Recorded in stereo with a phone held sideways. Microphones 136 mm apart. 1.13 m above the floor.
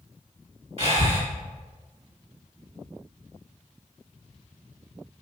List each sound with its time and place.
0.8 s breathing: 45° right (ahead or behind), 2.5 m